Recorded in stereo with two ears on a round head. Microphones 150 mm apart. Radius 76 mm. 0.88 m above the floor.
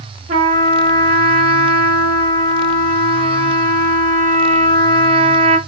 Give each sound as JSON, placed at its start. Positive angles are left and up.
{"t": 0.3, "sound": "a trumpet", "side_deg": -45, "distance_m": 1.8}